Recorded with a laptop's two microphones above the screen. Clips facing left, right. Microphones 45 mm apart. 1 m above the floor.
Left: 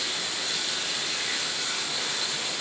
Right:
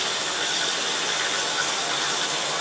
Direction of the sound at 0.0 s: 60° right (ahead or behind).